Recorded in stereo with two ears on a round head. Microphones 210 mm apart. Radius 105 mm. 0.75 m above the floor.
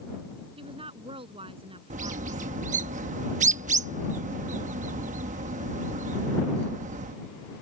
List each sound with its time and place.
0.6 s a woman speaking: 25° right (ahead or behind)
1.9 s a bird: 30° right (ahead or behind)